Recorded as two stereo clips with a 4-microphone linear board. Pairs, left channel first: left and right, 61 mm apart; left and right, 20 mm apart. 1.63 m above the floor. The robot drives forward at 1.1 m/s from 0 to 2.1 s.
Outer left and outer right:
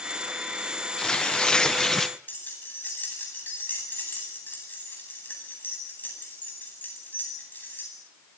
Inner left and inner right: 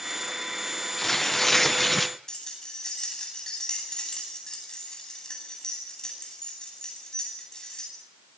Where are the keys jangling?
30° left (ahead or behind), 9.5 m.